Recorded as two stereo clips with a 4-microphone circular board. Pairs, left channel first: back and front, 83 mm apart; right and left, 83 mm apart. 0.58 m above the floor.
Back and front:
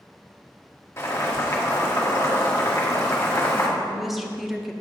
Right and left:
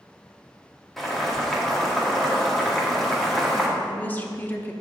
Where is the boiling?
175° right, 1.2 m.